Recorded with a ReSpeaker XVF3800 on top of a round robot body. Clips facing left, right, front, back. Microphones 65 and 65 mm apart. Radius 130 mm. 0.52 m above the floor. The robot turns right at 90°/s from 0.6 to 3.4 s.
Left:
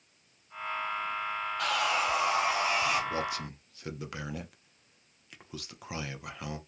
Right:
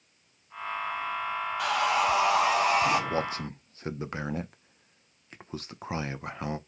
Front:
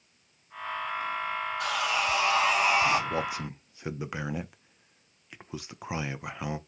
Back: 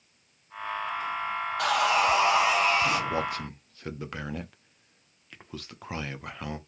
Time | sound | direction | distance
1.6 | sawing | 175° right | 0.5 m
3.1 | a man speaking | 95° right | 0.7 m